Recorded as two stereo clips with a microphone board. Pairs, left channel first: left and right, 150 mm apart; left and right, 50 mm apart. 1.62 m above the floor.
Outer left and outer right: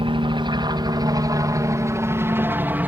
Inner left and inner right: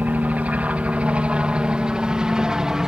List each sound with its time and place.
0.0 s a helicopter: 35° right (ahead or behind); by 2.9 s 10° right (ahead or behind)